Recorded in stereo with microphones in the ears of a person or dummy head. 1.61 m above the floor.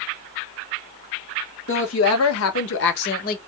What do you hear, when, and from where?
1.7 s a woman speaking: 65° left (ahead or behind), 0.9 m; by 3.4 s 55° left (ahead or behind), 0.9 m